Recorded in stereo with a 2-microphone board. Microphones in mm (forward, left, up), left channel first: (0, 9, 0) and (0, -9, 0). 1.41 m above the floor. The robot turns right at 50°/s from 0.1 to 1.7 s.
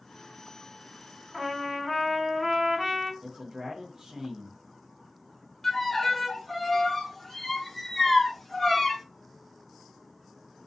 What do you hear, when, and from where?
1.3 s a trumpet: 35° right (ahead or behind), 1.4 m; by 3.1 s 30° right (ahead or behind), 1.4 m
3.2 s a man speaking: 40° right (ahead or behind), 0.5 m
5.6 s a violin: 5° left (ahead or behind), 0.6 m